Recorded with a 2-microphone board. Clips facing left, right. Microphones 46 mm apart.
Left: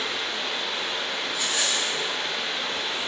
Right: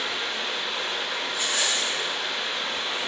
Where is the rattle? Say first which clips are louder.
Right 1 dB; 45° right (ahead or behind), 1.4 m.